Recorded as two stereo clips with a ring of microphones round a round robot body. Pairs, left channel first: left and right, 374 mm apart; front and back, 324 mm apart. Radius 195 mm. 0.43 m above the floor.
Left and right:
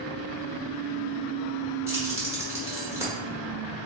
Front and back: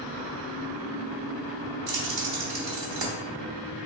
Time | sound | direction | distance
1.9 | keys jangling | 170° right | 1.2 m